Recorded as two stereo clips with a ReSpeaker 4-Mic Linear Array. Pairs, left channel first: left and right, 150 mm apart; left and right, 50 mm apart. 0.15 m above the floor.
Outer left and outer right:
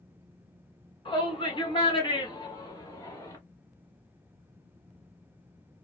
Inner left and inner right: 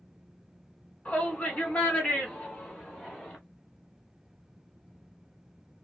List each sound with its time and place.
1.1 s a shout: 35° left (ahead or behind), 1.5 m; by 3.4 s 20° left (ahead or behind), 1.7 m